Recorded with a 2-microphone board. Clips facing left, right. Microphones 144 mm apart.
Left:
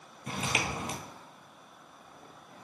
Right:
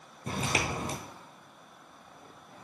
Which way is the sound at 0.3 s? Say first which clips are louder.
Right 2 dB; 40° right (ahead or behind).